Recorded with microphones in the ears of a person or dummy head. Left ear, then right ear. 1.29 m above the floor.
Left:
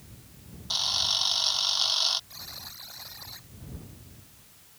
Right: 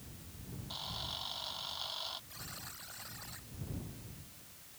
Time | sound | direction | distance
0.7 | a camera shutter | 75° left (ahead or behind) | ?
2.3 | a buzzer | 10° left (ahead or behind) | ?